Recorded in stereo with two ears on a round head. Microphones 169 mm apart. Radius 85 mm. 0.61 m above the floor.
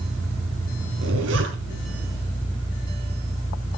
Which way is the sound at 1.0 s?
80° right.